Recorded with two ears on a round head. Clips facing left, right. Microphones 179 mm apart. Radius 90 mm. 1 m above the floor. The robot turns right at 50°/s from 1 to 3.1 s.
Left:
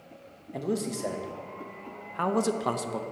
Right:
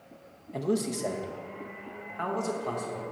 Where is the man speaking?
Centre (ahead or behind), 0.7 m; by 3.0 s 65° left (ahead or behind), 0.7 m.